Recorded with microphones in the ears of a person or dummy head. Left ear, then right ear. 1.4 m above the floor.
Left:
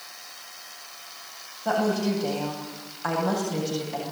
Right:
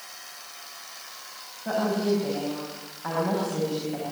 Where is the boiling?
No boiling in this recording.